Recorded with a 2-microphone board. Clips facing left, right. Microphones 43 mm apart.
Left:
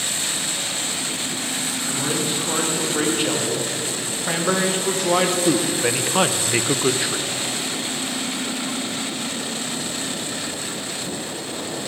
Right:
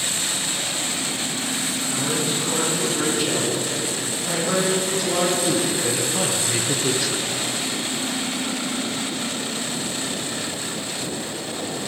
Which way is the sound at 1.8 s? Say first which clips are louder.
Left 1 dB; 45° left (ahead or behind).